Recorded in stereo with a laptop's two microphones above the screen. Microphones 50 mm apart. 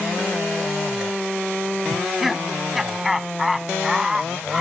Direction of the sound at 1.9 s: Centre (ahead or behind).